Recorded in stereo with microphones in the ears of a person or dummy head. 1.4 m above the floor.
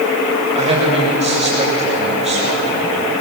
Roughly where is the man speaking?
Right.